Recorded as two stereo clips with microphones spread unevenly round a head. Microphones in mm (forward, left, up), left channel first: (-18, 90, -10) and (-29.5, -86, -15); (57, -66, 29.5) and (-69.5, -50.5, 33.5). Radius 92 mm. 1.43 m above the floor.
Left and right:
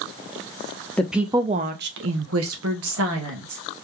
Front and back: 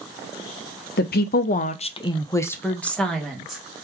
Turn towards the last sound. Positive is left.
turn(degrees=-100)